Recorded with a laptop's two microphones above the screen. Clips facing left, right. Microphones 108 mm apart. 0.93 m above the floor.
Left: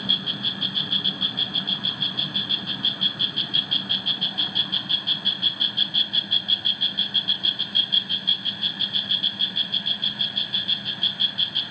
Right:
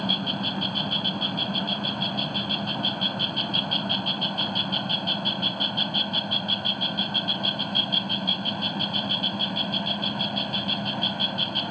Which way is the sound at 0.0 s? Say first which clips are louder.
Right 5 dB; 55° right (ahead or behind).